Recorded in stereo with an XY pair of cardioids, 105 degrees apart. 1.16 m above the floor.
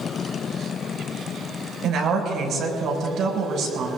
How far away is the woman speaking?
About 5 m.